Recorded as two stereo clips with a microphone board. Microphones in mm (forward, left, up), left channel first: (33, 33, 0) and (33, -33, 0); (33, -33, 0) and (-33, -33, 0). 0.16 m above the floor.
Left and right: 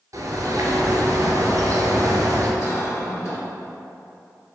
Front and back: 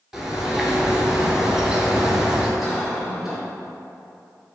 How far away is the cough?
About 1.9 m.